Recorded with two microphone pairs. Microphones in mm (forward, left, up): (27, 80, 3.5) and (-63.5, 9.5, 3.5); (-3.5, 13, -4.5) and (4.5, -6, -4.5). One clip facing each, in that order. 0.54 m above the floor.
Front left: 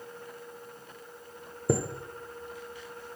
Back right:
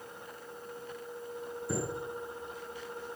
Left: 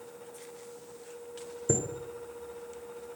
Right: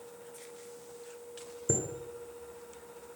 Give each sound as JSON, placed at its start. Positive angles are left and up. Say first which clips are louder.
{"t": 1.7, "sound": "a chime", "louder": "front left 8 dB, left 3 dB", "azimuth_deg": 35, "distance_m": 0.8}